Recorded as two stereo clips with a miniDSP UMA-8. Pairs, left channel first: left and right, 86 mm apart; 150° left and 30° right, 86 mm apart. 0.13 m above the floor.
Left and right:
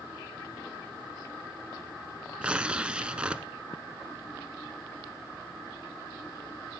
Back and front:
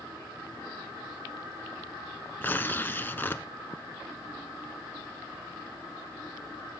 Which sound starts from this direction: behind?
Tearing paper, at 2.4 s.